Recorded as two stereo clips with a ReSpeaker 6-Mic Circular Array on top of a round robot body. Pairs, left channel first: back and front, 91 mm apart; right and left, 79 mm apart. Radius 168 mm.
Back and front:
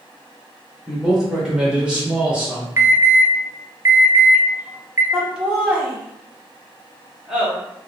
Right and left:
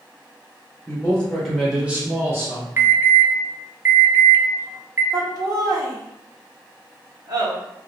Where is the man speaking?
90° right, 1.4 m; by 2.7 s 70° left, 1.6 m.